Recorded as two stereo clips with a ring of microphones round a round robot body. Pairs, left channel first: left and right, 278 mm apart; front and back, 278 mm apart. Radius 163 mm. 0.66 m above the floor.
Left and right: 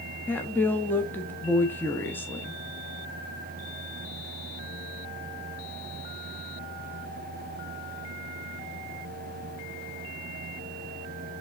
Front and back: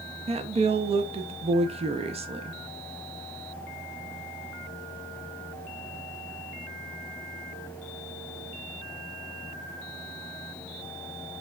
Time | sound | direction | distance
0.3 | a woman speaking | 160° left | 0.5 m